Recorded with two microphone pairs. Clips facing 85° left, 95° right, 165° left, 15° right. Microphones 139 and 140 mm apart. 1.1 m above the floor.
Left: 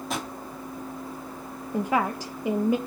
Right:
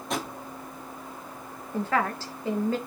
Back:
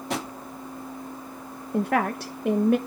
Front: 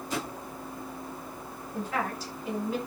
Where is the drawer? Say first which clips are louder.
Right 2 dB, back 3 dB; 175° left, 3.5 m.